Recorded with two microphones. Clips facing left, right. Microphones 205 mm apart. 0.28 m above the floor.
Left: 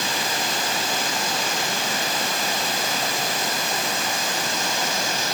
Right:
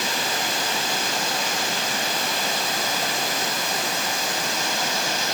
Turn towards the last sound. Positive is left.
No sound to turn to.